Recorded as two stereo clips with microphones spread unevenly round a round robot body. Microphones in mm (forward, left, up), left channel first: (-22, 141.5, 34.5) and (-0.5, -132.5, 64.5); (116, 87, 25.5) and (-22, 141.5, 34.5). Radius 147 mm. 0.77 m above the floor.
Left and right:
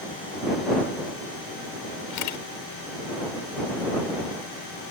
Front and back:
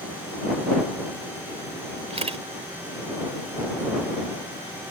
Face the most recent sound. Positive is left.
turn(degrees=110)